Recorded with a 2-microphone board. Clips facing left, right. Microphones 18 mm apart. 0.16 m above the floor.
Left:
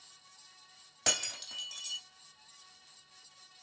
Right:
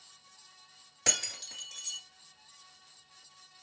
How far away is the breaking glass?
About 2.5 m.